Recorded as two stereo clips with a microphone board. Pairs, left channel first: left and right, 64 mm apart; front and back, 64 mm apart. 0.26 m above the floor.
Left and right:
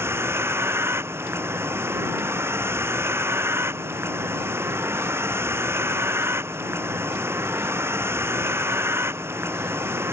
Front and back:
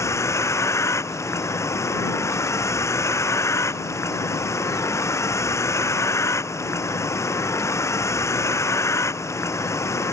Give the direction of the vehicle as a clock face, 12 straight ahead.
1 o'clock.